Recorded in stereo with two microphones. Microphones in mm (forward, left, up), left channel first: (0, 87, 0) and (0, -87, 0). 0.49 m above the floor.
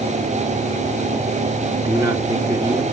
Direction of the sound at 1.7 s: 20° right (ahead or behind).